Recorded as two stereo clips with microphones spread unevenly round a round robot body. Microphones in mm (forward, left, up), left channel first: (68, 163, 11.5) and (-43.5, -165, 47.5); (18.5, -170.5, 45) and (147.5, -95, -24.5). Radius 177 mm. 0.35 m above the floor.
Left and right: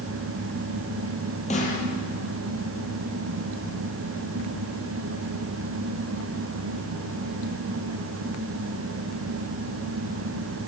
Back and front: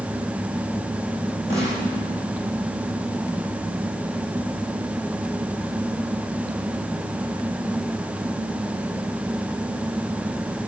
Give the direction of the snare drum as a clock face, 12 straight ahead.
7 o'clock.